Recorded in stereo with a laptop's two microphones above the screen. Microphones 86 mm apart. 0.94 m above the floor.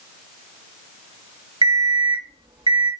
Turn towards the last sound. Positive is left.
turn(degrees=-65)  # may be behind; listen again after turning